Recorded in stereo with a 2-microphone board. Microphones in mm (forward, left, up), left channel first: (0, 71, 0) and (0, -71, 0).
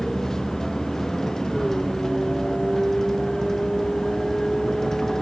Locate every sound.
0.0 s a vehicle: 5° left (ahead or behind)